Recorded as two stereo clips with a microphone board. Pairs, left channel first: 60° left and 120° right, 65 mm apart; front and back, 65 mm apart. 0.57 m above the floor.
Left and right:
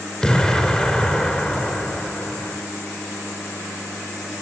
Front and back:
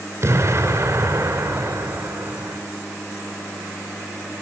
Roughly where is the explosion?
Behind left.